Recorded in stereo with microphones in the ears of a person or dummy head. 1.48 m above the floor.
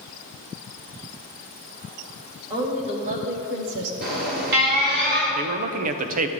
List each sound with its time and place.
2.5 s a woman speaking: 20° right (ahead or behind), 1.8 m; by 3.9 s 75° right (ahead or behind), 1.1 m
4.0 s an alarm: 55° right (ahead or behind), 2.5 m
5.3 s a man speaking: 40° right (ahead or behind), 0.5 m